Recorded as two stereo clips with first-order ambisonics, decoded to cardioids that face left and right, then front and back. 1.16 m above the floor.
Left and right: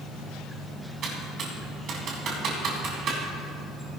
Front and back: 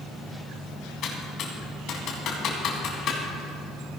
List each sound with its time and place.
1.0 s typing on a keyboard: 40° right, 2 m